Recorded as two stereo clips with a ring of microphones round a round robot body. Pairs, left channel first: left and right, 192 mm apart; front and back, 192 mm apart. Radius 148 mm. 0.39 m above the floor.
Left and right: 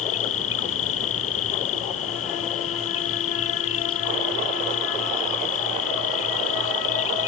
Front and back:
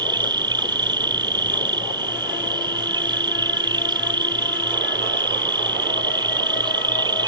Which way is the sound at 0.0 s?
110° left.